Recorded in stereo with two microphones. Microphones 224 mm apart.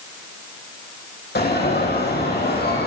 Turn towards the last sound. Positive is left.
turn(degrees=45)  # may be behind; listen again after turning